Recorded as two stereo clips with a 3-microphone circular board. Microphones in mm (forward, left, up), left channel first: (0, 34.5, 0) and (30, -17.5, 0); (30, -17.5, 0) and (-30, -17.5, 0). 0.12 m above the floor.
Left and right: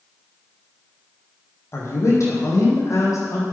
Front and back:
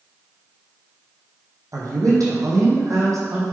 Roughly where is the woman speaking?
Behind.